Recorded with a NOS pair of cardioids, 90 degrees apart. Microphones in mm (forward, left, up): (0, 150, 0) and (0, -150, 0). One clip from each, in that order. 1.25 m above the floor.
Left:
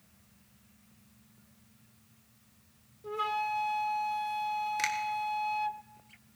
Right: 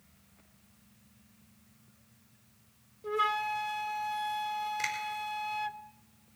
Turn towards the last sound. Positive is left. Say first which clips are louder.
# left 3 dB
turn(degrees=65)